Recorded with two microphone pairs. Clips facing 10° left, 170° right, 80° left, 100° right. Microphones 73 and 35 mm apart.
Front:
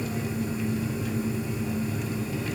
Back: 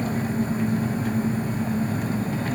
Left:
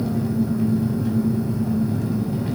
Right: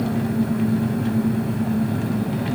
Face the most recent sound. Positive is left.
turn(degrees=-125)